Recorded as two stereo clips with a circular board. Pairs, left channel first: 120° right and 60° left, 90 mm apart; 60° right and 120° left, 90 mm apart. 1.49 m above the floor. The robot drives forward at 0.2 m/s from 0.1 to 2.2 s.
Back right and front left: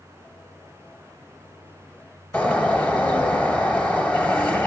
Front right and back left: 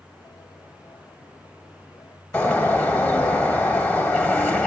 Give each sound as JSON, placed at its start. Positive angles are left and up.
{"t": 2.3, "sound": "a bird", "azimuth_deg": -100, "distance_m": 1.3}